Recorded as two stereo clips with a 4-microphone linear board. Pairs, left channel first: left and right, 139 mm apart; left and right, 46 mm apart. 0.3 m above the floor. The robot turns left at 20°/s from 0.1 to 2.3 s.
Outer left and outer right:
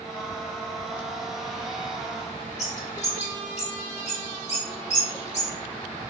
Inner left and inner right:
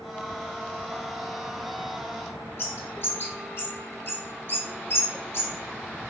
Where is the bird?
55° left (ahead or behind), 0.9 m.